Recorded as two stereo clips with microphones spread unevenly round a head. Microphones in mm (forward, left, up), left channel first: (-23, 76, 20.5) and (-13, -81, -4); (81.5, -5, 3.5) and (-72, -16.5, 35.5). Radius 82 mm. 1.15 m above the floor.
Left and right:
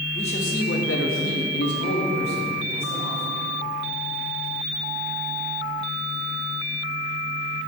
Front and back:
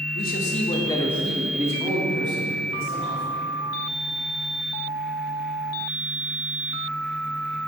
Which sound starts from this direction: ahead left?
A man speaking, at 0.1 s.